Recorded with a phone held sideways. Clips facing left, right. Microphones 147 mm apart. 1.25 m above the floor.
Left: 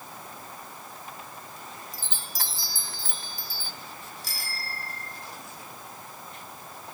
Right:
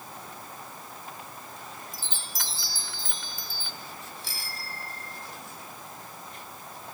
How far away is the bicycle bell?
About 6 m.